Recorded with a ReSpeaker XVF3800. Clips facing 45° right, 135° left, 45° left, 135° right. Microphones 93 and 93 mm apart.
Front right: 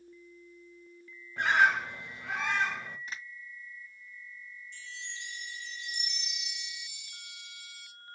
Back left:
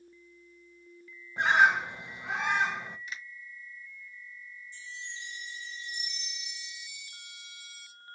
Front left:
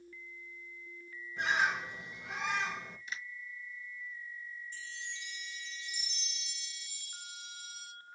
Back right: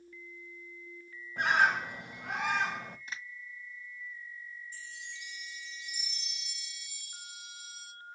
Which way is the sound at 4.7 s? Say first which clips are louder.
Back left 1 dB, front left 1 dB; 55° right.